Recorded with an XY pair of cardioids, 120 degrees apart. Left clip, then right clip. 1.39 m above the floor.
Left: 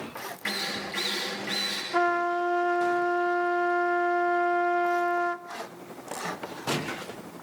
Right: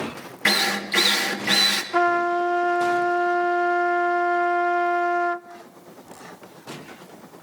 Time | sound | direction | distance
0.5 | a drill | 65° right | 3 m
1.9 | a trumpet | 25° right | 0.6 m